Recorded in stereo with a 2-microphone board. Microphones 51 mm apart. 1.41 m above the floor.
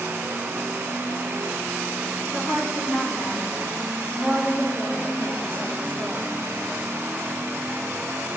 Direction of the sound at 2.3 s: 45° left (ahead or behind).